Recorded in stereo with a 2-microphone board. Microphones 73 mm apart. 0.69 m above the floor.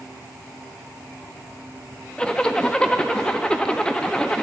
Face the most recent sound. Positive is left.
turn(degrees=15)  # may be behind; listen again after turning